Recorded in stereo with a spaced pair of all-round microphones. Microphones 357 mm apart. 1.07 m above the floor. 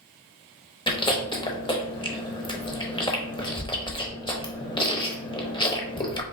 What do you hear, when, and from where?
0.9 s chewing: 15° left (ahead or behind), 0.9 m